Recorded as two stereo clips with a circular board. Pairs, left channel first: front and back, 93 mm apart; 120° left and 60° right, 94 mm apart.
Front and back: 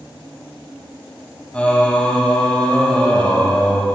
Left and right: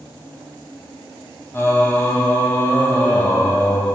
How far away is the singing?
About 1.5 m.